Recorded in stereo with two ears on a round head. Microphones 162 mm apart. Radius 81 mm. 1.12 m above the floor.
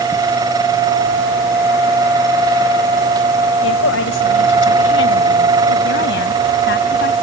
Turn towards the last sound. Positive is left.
turn(degrees=60)  # may be behind; listen again after turning